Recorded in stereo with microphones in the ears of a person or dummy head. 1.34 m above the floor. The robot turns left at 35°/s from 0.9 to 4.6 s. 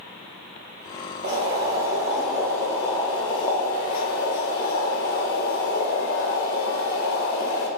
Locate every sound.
1.2 s boiling: 145° right, 0.9 m; by 7.7 s 100° left, 0.9 m